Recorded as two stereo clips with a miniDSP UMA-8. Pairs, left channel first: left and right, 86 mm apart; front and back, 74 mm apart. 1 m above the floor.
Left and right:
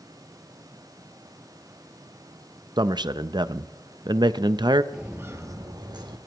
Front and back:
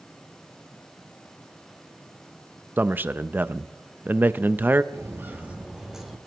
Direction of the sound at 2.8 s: 115° right.